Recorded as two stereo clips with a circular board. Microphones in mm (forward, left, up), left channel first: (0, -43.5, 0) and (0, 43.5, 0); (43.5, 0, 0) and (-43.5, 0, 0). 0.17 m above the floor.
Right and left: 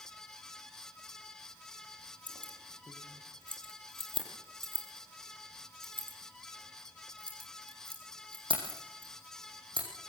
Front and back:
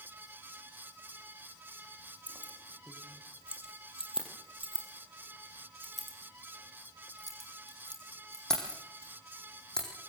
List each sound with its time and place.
2.3 s keys jangling: 105° left, 4 m; by 9.9 s 80° left, 7 m